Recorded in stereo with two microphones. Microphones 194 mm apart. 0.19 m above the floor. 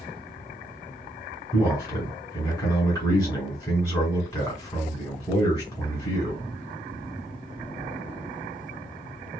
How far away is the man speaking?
About 2 m.